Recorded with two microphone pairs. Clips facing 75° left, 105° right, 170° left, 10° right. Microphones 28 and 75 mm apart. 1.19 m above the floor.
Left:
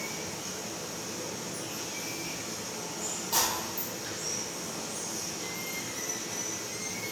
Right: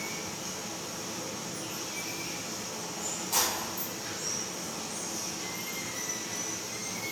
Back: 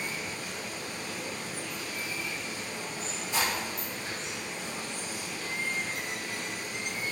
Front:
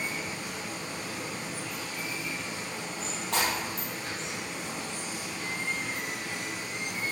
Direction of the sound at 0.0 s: 20° right.